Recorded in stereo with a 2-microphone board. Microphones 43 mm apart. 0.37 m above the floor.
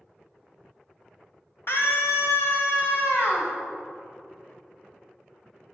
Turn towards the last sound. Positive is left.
turn(degrees=60)  # may be behind; listen again after turning